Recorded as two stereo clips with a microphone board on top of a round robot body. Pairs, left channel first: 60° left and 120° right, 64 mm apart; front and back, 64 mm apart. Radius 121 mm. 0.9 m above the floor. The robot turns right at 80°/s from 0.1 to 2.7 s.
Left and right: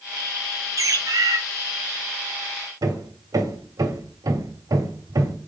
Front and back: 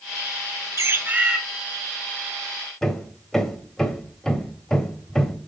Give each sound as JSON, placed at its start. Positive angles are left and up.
{"t": 0.8, "sound": "a bird", "azimuth_deg": -145, "distance_m": 1.5}
{"t": 2.8, "sound": "hammering", "azimuth_deg": -80, "distance_m": 1.4}